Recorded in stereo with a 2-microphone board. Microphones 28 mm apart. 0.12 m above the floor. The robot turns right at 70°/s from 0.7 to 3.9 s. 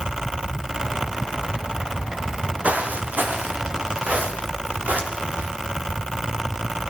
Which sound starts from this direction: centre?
Footsteps, at 2.2 s.